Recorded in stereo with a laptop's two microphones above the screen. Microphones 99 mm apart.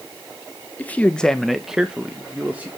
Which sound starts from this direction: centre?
A man speaking, at 0.8 s.